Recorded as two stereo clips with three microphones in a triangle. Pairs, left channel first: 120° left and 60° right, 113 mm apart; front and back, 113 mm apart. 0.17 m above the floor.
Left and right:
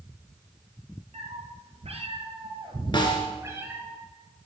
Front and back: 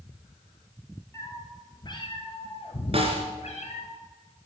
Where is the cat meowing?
65° right, 1.7 m; by 3.9 s 15° left, 1.9 m.